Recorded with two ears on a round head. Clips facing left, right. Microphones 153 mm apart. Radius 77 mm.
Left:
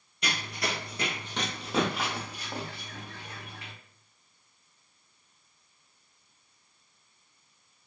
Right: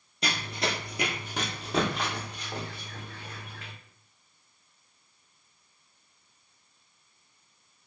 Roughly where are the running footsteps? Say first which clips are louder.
Right 2 dB; right.